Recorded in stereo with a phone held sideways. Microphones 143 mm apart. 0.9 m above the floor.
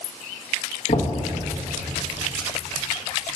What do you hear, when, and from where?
0.9 s knocking: 55° left (ahead or behind), 1.0 m